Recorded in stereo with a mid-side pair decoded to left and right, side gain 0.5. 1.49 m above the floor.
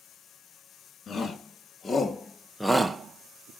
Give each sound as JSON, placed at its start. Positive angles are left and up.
{"t": 1.1, "sound": "a shout", "azimuth_deg": 35, "distance_m": 3.0}